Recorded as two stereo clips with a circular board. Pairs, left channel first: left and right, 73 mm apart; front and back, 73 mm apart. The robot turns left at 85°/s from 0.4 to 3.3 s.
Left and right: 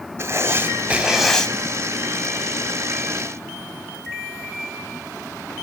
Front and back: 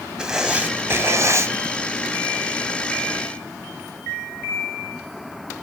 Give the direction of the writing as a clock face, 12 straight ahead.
4 o'clock.